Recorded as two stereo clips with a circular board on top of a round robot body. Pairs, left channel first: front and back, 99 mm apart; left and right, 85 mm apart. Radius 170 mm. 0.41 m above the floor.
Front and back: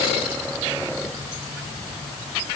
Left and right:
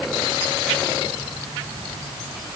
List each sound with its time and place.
Only background noise.